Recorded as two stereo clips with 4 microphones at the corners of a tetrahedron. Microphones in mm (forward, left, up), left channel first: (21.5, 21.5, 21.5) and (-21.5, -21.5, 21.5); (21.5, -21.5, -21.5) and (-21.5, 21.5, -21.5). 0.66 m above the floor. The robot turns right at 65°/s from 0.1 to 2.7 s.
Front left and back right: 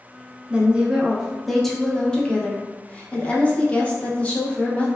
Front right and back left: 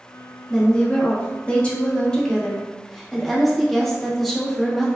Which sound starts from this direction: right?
A woman speaking, at 0.5 s.